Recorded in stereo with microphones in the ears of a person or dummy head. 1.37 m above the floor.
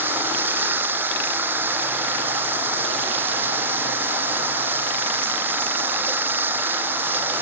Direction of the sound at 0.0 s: 5° right (ahead or behind).